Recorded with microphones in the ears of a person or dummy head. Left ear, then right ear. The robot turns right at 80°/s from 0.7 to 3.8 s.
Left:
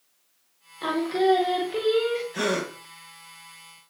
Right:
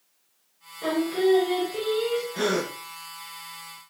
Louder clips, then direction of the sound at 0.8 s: Left 1 dB; 30° left.